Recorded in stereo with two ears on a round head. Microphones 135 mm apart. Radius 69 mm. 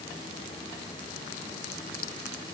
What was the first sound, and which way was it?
Only background noise.